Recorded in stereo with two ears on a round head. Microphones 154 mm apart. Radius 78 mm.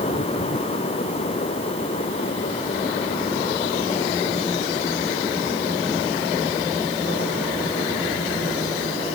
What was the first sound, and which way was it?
Only background noise.